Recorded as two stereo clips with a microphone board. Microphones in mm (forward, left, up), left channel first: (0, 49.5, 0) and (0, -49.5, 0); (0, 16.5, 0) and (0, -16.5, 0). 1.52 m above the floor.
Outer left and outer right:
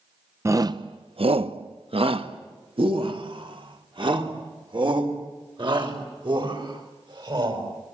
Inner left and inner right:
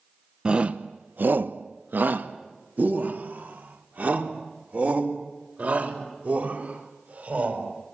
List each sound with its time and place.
0.5 s a shout: 30° right (ahead or behind), 0.8 m; by 7.6 s 50° right (ahead or behind), 7 m